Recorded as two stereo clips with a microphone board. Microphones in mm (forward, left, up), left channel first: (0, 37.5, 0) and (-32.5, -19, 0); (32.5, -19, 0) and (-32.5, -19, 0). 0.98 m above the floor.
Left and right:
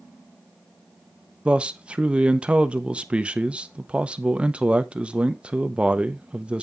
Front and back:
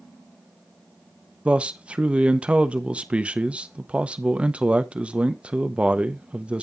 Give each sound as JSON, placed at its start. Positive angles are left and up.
{"t": 1.4, "sound": "a man speaking", "azimuth_deg": -150, "distance_m": 0.7}